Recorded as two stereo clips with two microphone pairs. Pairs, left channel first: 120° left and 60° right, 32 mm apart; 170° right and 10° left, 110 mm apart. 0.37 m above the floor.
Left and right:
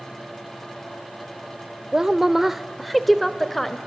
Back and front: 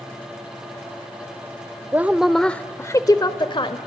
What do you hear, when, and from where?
1.9 s a woman speaking: 40° right, 0.8 m; by 3.8 s 160° right, 1.3 m